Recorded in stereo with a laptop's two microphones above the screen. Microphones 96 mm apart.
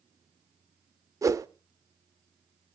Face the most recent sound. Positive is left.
turn(degrees=-35)  # may be behind; listen again after turning